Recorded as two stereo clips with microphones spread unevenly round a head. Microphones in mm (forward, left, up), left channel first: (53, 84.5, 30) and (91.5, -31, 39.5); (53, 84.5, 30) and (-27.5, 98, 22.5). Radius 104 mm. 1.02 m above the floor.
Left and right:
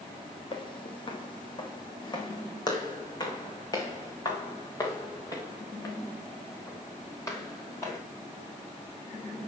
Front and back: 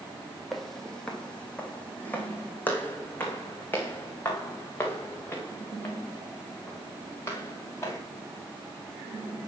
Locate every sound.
0.5 s footsteps: 75° left, 1.4 m; by 8.0 s 45° left, 5.5 m